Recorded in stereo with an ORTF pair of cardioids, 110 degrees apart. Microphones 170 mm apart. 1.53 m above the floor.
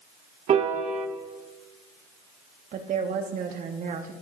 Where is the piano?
45° right, 1.8 m.